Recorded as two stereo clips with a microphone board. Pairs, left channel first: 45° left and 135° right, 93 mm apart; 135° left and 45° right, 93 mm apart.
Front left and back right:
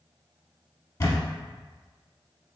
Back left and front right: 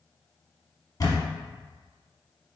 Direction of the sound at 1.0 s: 90° left.